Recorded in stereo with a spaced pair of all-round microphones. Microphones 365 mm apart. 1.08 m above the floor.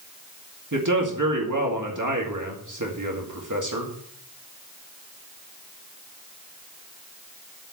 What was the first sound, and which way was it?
A man speaking, 55° right (ahead or behind).